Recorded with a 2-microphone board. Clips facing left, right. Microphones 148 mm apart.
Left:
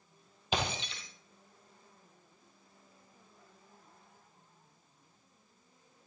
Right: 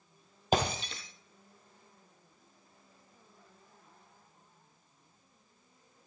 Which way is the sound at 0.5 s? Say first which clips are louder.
Right 5 dB; 45° right (ahead or behind).